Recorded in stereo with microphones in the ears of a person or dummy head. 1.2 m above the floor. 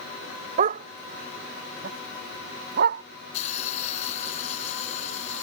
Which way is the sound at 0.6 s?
40° right (ahead or behind).